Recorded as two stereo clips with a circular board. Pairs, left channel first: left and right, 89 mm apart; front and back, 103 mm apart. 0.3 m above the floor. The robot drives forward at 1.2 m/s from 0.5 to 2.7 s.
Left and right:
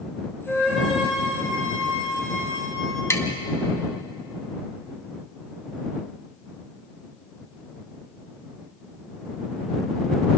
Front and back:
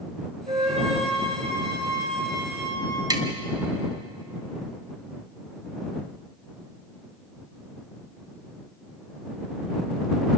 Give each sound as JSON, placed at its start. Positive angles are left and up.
{"t": 0.5, "sound": "a flute", "azimuth_deg": 180, "distance_m": 9.0}
{"t": 3.1, "sound": "tapping", "azimuth_deg": 140, "distance_m": 2.0}